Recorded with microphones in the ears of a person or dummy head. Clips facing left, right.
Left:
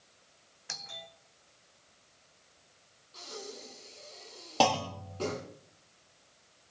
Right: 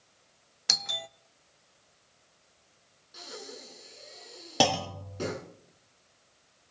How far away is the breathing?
About 4 m.